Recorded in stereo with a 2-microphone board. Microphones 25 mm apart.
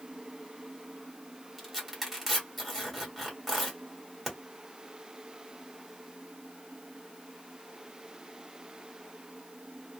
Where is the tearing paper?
5° right (ahead or behind), 1.6 m.